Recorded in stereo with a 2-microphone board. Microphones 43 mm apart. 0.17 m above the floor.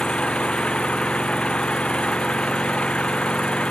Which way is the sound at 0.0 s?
25° left (ahead or behind).